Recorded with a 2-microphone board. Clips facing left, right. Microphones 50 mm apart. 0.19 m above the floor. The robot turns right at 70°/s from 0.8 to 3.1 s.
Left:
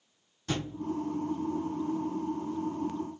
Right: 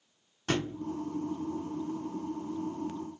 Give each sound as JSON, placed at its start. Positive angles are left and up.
{"t": 0.5, "sound": "a thud", "side_deg": -55, "distance_m": 1.0}